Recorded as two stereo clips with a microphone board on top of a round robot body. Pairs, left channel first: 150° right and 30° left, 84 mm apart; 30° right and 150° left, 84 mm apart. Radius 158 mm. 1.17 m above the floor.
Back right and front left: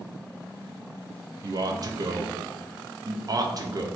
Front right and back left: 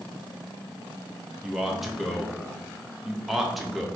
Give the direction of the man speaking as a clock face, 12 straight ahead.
10 o'clock.